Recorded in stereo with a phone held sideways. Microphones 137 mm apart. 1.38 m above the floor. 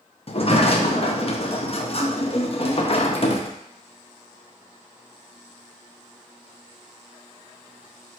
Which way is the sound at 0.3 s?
45° left (ahead or behind).